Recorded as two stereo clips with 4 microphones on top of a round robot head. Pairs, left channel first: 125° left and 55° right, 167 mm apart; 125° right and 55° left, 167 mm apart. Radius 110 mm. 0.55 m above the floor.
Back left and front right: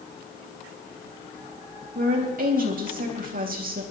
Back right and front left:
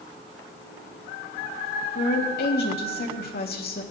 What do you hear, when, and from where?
1.9 s a woman speaking: 95° right, 3.5 m